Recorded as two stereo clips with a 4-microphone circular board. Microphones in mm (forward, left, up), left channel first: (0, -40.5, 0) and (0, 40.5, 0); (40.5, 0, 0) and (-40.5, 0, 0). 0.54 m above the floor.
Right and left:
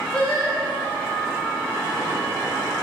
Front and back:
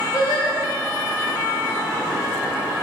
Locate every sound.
0.1 s singing: 15° right, 1.1 m